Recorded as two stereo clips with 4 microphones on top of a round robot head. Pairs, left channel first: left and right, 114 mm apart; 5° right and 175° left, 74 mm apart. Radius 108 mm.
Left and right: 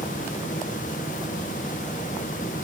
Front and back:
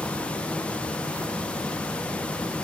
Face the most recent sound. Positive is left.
No sound to turn to.